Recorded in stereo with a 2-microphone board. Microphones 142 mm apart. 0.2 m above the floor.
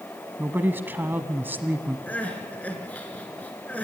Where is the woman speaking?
15° right (ahead or behind), 1.1 m.